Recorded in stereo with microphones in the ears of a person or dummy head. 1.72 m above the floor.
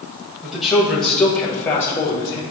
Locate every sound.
0.4 s a man speaking: 5° right (ahead or behind), 1.8 m; by 2.4 s 25° left (ahead or behind), 1.2 m